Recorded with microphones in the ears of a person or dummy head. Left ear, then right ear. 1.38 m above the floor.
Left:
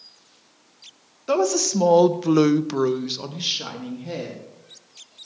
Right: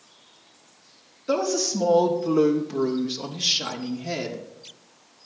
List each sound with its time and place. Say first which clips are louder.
1.3 s a woman speaking: left 3 dB; 40° left (ahead or behind), 1.2 m; by 4.4 s 10° right (ahead or behind), 1.4 m